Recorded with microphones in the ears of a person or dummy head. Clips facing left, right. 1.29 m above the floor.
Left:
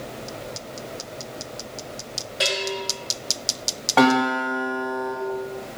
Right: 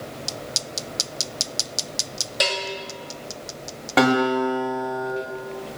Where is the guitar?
25° right (ahead or behind), 1.0 m.